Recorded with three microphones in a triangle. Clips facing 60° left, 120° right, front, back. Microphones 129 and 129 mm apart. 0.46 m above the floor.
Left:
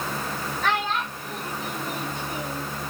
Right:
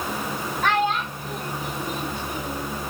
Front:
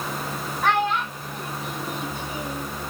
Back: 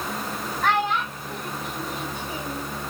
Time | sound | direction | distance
0.6 | a child speaking | 80° right | 1.8 m